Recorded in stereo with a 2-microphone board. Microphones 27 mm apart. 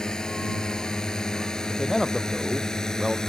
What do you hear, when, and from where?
0.0 s a drone: 25° left (ahead or behind); by 3.3 s 20° left (ahead or behind)
1.7 s a man speaking: 5° right (ahead or behind)